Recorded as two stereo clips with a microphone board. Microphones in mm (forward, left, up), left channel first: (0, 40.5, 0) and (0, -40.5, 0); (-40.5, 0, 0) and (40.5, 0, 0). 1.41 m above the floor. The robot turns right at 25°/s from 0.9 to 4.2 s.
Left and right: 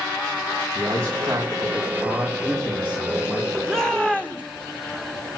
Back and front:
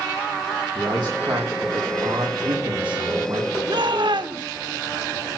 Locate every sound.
0.8 s a man speaking: 35° right, 5 m; by 3.5 s 30° left, 5 m
3.7 s a shout: 5° left, 3 m; by 4.4 s 15° left, 3 m